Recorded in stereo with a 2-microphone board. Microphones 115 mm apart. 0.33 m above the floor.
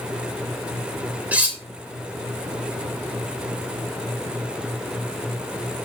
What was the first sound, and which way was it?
Cutlery clinking, 15° right (ahead or behind).